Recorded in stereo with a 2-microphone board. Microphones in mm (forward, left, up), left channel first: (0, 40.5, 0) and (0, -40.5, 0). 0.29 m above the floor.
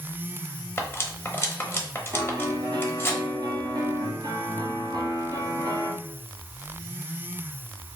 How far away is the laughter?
No laughter in this recording.